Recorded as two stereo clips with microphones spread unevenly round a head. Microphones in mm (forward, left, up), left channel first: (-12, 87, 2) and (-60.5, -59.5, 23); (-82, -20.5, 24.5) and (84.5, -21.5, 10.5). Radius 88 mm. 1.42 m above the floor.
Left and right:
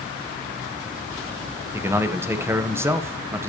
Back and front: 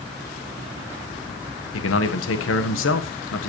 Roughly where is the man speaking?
Behind.